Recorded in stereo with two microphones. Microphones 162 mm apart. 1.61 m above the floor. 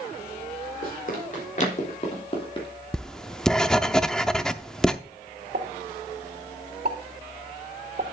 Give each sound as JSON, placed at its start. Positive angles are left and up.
{"t": 0.8, "sound": "running footsteps", "side_deg": 60, "distance_m": 4.0}
{"t": 2.9, "sound": "writing", "side_deg": 5, "distance_m": 0.5}
{"t": 5.5, "sound": "a pop", "side_deg": -70, "distance_m": 1.7}